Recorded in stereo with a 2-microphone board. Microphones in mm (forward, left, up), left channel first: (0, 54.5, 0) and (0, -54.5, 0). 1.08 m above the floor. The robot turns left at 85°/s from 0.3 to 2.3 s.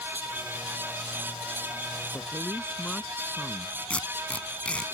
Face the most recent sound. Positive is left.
turn(degrees=10)  # may be behind; listen again after turning